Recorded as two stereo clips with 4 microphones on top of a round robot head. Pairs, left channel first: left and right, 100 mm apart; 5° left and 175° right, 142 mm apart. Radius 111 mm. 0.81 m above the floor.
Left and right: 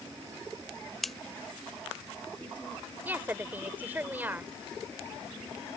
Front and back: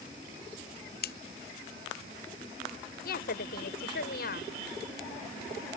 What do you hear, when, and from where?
1.0 s scissors: straight ahead
3.0 s a woman speaking: 20° right